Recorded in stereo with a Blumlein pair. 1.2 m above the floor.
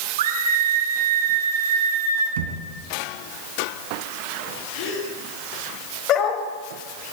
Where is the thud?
55° right, 3.5 m.